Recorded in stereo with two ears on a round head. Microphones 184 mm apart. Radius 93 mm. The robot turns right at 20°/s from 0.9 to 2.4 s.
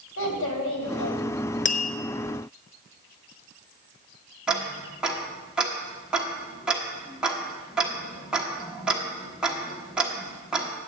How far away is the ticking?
About 1.1 m.